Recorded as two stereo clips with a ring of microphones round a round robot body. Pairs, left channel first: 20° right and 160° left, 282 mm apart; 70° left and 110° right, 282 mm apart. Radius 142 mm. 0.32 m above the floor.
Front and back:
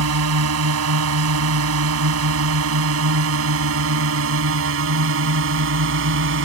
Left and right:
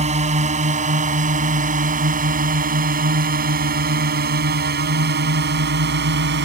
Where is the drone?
175° right; by 6.4 s 160° right.